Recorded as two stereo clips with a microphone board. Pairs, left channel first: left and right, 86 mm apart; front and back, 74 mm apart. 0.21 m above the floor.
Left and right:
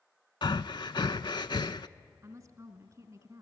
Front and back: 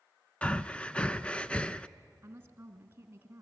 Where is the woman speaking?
125° right, 2 m.